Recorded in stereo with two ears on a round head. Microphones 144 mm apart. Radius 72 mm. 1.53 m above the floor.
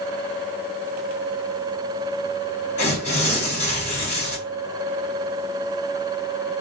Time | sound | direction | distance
2.8 | tearing paper | 40° left (ahead or behind) | 1.7 m